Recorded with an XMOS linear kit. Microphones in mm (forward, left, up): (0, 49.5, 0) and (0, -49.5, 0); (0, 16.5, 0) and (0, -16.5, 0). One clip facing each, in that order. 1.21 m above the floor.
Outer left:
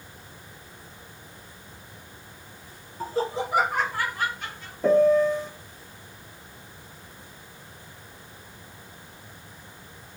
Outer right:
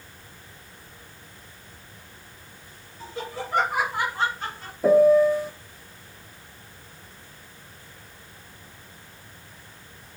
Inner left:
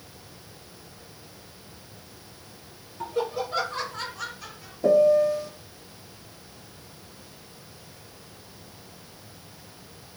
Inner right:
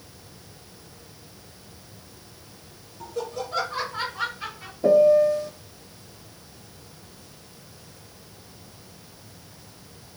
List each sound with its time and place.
3.0 s laughter: 45° left (ahead or behind), 1.4 m; by 4.7 s 40° right (ahead or behind), 2.5 m
4.8 s a piano: 5° right (ahead or behind), 1.0 m